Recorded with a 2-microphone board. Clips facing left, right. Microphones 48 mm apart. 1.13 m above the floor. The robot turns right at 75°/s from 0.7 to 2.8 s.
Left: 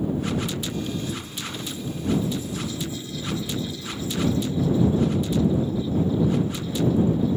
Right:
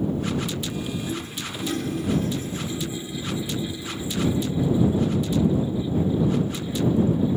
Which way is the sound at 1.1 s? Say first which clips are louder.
Right 1 dB; 150° right.